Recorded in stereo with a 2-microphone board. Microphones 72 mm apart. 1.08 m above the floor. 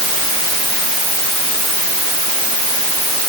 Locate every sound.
Only background noise.